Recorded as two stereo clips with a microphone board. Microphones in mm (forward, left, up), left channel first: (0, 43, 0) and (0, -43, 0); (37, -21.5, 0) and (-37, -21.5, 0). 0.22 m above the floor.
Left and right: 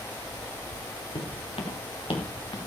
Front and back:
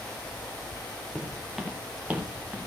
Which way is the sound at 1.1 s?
85° left.